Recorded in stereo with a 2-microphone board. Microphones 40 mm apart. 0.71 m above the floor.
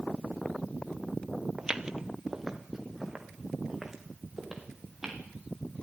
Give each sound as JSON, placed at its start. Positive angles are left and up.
{"t": 1.6, "sound": "footsteps", "side_deg": -15, "distance_m": 0.9}